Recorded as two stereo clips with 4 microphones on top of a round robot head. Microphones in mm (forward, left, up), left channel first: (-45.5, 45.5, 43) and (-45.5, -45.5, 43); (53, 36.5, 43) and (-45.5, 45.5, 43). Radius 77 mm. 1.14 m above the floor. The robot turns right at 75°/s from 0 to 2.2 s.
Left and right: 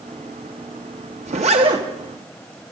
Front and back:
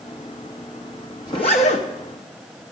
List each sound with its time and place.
1.3 s a zipper: 70° right, 0.8 m; by 1.9 s 25° right, 0.8 m